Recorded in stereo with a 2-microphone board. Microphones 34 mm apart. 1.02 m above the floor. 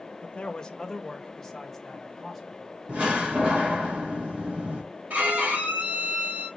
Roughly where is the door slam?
Right.